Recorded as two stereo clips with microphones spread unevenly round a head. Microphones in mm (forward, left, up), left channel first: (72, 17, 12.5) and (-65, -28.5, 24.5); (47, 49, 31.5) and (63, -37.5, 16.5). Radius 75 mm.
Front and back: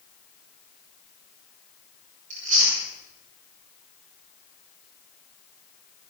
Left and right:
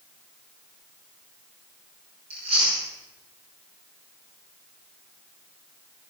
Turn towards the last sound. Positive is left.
turn(degrees=-120)